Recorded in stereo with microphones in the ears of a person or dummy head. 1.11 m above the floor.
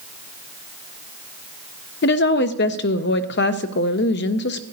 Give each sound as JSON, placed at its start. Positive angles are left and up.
{"t": 2.0, "sound": "a woman speaking", "side_deg": 50, "distance_m": 0.6}